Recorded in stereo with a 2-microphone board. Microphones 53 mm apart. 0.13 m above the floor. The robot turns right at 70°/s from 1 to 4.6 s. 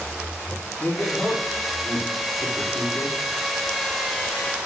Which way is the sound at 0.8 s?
40° left (ahead or behind).